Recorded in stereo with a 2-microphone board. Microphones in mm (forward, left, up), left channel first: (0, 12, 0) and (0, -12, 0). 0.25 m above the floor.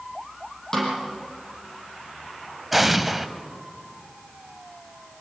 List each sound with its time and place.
0.7 s a snare drum: 20° left (ahead or behind), 5.5 m
2.7 s an explosion: 5° right (ahead or behind), 0.9 m